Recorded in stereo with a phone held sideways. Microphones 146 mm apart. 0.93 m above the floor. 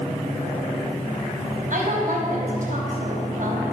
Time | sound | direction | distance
1.7 | a woman speaking | 65° right (ahead or behind) | 5 m